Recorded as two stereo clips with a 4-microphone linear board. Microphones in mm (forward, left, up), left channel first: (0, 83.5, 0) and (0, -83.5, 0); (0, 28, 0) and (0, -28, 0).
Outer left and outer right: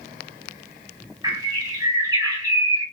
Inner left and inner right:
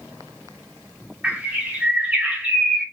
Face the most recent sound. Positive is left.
turn(degrees=-20)  # may be behind; listen again after turning